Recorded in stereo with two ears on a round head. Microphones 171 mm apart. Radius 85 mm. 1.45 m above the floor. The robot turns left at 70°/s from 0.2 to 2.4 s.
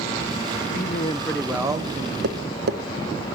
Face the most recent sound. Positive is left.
turn(degrees=-55)  # may be behind; listen again after turning